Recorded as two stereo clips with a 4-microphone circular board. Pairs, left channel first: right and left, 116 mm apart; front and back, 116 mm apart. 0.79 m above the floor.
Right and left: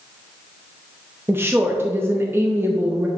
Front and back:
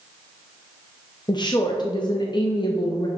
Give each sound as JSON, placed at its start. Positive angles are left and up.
{"t": 1.3, "sound": "a woman speaking", "azimuth_deg": 30, "distance_m": 0.6}